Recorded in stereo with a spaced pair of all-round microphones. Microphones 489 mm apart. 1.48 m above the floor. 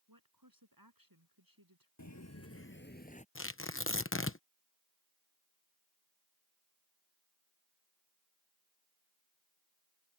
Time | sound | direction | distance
0.1 | a woman speaking | 45° right (ahead or behind) | ?
2.0 | footsteps | 35° left (ahead or behind) | ?
3.4 | tearing paper | 25° left (ahead or behind) | ?